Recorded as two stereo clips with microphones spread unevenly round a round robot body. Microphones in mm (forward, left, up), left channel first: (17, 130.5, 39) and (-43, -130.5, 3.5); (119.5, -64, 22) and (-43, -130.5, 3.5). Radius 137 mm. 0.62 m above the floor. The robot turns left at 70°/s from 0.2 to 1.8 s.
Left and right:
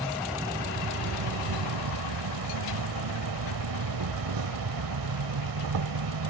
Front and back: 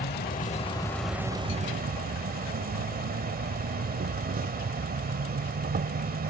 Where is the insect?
5° right; by 6.3 s 120° right.